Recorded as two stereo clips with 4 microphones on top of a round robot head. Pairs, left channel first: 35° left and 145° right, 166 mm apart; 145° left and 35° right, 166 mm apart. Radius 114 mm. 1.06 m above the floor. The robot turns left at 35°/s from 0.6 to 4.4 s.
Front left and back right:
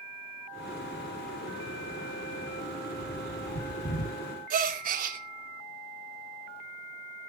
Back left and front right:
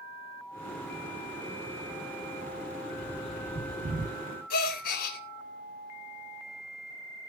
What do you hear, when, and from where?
3.0 s a bird: 40° left, 9.5 m; by 4.2 s 5° right, 9.5 m
4.5 s a gasp: 175° left, 3.5 m